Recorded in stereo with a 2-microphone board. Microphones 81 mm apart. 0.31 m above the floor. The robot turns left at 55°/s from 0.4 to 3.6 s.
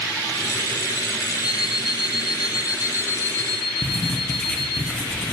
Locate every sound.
1.4 s an alarm clock: 125° left, 4 m; by 4.8 s 5° left, 4 m
3.8 s writing: 10° left (ahead or behind), 3 m